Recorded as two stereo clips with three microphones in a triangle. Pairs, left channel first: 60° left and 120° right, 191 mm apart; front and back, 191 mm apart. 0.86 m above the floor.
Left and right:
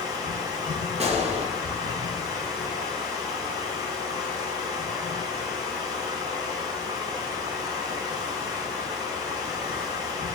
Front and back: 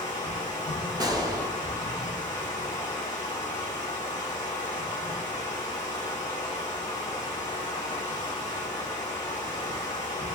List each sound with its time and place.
0.0 s running water: 50° right, 1.2 m
1.0 s a gunshot: 125° right, 0.6 m